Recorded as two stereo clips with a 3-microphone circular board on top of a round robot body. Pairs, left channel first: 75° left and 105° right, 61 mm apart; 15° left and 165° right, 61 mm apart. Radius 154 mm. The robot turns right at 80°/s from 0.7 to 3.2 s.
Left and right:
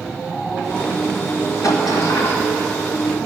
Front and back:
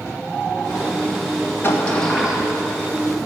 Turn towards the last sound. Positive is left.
turn(degrees=-170)